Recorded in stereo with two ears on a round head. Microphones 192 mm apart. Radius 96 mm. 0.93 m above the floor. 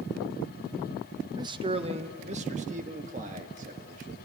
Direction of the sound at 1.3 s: 15° right (ahead or behind).